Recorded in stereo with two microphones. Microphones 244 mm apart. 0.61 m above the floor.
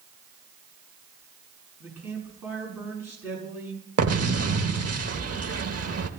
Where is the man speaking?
10° right (ahead or behind), 6.5 m.